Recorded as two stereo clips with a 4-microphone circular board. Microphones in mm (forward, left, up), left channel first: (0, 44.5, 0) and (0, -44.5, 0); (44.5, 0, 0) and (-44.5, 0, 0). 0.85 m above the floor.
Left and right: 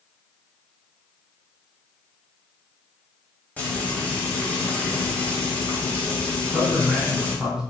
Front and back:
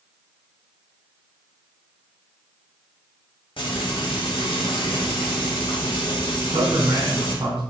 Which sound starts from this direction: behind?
A man speaking, at 6.3 s.